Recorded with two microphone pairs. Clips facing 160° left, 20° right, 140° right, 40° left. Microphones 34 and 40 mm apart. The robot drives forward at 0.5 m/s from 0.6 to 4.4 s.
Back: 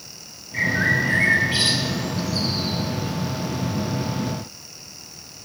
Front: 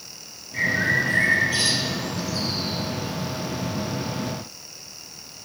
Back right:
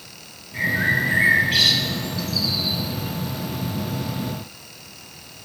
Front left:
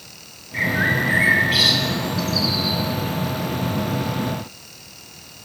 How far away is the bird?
About 1.1 m.